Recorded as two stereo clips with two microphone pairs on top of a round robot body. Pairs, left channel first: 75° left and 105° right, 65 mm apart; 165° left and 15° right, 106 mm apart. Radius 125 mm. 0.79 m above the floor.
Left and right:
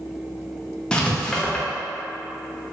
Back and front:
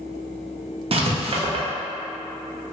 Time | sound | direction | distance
0.9 | writing | 5° right | 0.6 m